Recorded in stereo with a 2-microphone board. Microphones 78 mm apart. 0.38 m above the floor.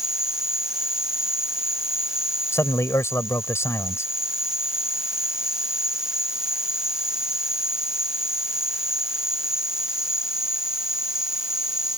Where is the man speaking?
35° left (ahead or behind).